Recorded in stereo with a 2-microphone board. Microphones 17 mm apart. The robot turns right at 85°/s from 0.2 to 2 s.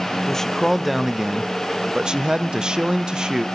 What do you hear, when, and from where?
0.3 s a man speaking: 140° left, 0.5 m; by 3.5 s 70° right, 0.5 m